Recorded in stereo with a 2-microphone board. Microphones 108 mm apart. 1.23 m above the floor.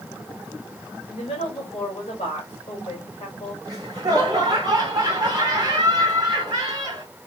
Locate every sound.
1.1 s a woman speaking: 65° left (ahead or behind), 2.5 m
3.6 s laughter: 35° right (ahead or behind), 1.3 m